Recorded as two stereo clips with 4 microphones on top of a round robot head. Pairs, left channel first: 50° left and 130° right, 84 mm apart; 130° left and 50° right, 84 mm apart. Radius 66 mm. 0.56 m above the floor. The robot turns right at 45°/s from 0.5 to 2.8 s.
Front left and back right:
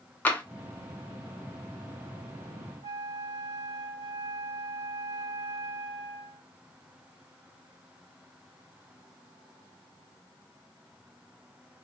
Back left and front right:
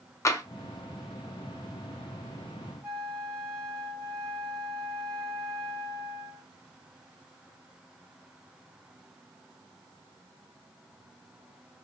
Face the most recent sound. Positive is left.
turn(degrees=-110)